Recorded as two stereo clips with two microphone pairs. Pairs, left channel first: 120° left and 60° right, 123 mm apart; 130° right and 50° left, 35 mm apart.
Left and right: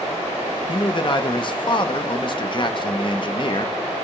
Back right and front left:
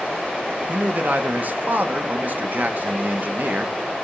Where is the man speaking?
80° left, 0.7 m.